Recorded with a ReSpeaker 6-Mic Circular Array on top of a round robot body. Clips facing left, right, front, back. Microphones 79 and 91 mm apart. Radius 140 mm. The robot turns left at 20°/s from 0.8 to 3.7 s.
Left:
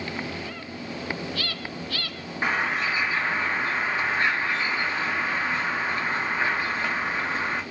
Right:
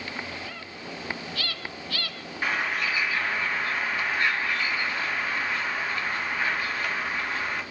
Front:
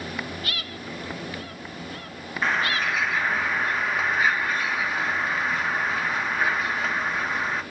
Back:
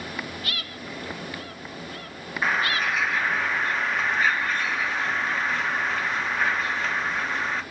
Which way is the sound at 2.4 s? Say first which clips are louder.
Left 2 dB, even; 100° left.